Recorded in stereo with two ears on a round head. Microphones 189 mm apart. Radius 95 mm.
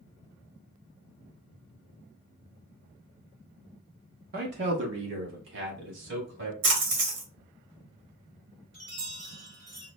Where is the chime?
60° right (ahead or behind), 2 m.